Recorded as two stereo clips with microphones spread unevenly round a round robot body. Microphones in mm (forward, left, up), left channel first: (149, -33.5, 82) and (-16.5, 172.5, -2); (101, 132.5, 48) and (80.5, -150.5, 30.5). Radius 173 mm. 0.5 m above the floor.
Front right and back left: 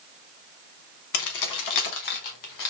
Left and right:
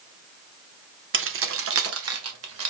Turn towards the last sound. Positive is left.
turn(degrees=-65)